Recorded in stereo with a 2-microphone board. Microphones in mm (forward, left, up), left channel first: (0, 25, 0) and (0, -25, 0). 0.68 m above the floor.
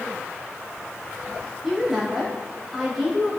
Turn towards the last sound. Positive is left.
turn(degrees=-5)  # may be behind; listen again after turning